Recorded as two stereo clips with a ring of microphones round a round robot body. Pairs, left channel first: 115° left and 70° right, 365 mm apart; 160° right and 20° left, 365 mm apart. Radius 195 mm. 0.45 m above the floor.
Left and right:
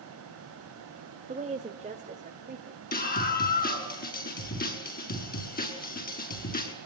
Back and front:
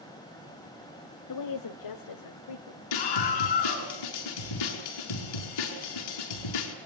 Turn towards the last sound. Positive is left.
turn(degrees=180)